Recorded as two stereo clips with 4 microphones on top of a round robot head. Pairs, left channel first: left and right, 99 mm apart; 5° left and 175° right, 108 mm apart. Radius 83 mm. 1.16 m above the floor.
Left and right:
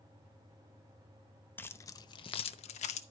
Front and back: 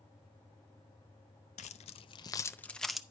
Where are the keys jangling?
20° left, 0.6 m; by 3.0 s 100° left, 0.7 m.